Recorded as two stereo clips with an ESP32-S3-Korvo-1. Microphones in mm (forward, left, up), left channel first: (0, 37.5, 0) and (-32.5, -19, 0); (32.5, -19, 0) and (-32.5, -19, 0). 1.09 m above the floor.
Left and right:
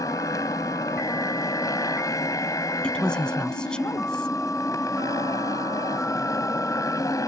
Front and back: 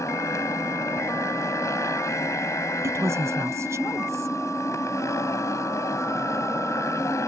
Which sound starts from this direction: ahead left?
A motorcycle, at 0.0 s.